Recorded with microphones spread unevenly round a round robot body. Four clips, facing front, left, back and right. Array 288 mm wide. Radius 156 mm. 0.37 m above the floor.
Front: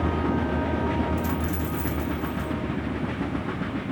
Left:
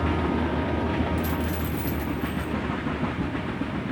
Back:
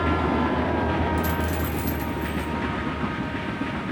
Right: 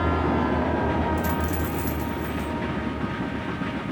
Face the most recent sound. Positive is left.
turn(degrees=-120)